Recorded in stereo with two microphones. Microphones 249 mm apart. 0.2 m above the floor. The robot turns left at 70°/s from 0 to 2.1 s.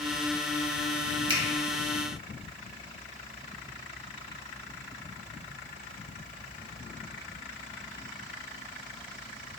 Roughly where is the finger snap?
Right.